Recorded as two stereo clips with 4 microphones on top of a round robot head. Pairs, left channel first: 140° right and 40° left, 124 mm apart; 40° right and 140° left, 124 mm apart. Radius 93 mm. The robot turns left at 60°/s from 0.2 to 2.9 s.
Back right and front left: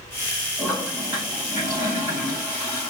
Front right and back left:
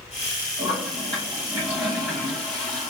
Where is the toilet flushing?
130° left, 2.5 m; by 2.9 s 10° right, 2.5 m.